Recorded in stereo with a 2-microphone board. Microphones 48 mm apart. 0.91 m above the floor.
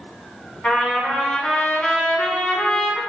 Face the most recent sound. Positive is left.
turn(degrees=30)  # may be behind; listen again after turning